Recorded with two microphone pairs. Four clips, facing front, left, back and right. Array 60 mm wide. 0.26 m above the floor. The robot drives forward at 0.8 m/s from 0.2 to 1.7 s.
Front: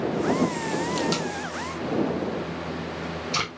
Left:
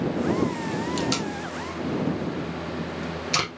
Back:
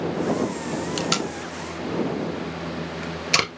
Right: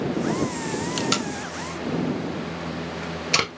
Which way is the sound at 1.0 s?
135° right.